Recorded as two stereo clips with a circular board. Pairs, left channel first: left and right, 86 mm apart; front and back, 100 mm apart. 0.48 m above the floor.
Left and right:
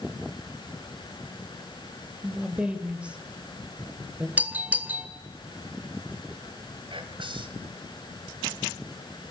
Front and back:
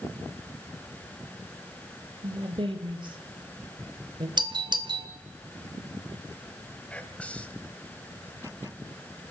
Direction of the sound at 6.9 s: 80° right.